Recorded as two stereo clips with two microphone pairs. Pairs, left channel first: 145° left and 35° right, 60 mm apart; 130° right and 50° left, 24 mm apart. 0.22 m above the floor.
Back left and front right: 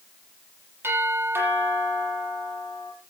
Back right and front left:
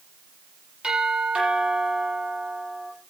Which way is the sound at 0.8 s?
10° left.